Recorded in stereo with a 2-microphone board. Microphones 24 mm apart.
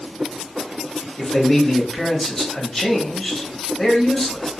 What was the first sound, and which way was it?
A man speaking, 20° left (ahead or behind).